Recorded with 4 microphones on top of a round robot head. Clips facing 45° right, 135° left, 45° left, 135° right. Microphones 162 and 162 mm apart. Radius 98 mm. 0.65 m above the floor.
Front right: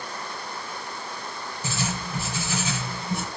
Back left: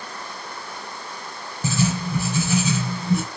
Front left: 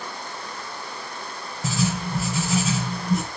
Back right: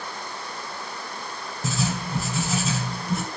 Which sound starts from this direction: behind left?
Writing, at 1.6 s.